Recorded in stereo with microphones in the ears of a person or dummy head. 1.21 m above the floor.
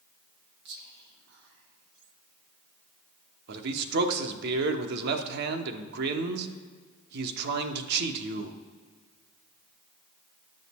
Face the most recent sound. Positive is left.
turn(degrees=-60)  # may be behind; listen again after turning